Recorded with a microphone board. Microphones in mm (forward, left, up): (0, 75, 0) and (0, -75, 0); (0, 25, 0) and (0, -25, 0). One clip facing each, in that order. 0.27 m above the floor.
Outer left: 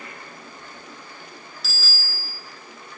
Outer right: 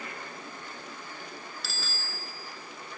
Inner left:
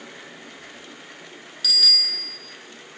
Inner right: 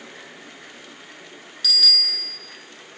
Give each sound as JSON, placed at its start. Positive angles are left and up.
{"t": 1.6, "sound": "a bicycle bell", "side_deg": 0, "distance_m": 3.0}